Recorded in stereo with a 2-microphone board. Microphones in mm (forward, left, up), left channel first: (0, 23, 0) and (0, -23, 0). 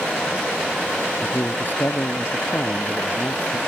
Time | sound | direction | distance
1.2 | a man speaking | 45° left (ahead or behind) | ?